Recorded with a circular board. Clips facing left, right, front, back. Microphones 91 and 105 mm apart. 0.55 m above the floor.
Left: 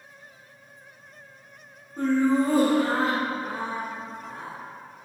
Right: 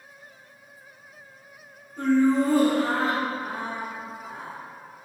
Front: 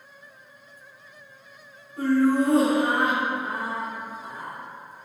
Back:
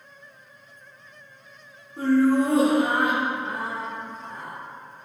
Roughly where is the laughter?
Behind left.